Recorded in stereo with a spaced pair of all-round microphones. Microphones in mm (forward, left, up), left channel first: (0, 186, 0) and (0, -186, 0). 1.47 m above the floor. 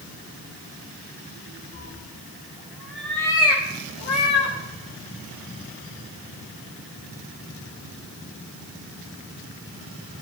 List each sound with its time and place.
1.7 s a cat meowing: 35° right (ahead or behind), 0.9 m; by 4.6 s 30° left (ahead or behind), 1.5 m